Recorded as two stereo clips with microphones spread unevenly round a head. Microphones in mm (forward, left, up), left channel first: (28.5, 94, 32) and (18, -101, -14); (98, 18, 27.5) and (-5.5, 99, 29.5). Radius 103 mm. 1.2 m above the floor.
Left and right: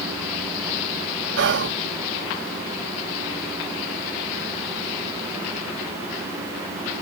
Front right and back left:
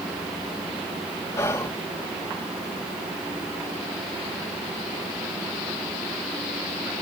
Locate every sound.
1.4 s whispering: 110° right